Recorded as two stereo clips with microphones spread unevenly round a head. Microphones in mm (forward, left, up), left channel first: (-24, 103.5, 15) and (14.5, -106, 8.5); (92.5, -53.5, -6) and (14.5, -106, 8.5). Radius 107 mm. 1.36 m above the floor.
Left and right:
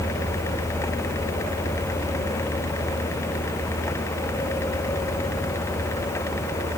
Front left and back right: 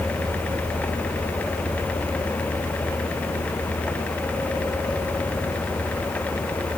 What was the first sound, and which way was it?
Only background noise.